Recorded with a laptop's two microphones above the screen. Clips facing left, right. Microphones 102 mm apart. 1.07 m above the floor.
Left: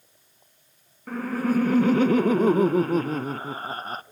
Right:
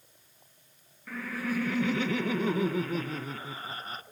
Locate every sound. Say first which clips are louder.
1.1 s laughter: left 9 dB; 45° left (ahead or behind), 0.6 m